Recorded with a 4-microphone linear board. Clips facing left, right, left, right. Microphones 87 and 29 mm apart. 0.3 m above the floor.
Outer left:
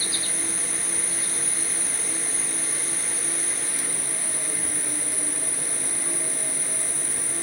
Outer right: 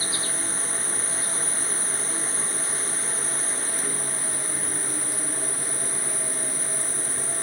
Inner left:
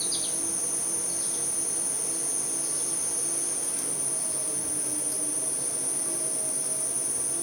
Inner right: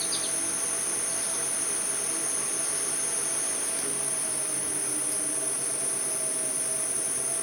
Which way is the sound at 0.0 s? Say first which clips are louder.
Outer right 1 dB, inner right 1 dB; 20° left (ahead or behind).